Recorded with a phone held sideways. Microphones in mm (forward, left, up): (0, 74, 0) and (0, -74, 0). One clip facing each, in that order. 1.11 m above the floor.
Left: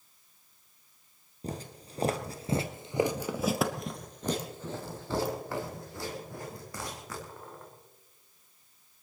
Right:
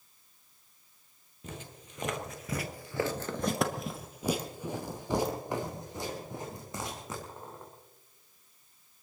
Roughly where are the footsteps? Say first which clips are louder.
Left 6 dB; left.